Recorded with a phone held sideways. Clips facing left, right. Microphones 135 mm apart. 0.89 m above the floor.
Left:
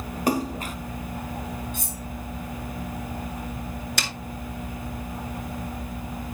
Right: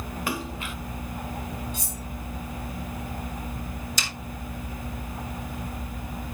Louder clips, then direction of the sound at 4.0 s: Left 3 dB; 65° left (ahead or behind).